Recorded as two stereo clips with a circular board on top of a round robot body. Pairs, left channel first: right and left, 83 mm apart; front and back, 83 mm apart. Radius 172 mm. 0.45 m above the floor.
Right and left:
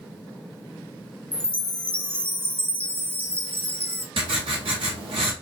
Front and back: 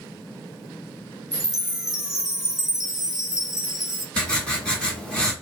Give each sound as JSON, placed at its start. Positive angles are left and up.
{"t": 1.3, "sound": "a chime", "azimuth_deg": 105, "distance_m": 1.0}
{"t": 4.2, "sound": "writing", "azimuth_deg": 80, "distance_m": 1.4}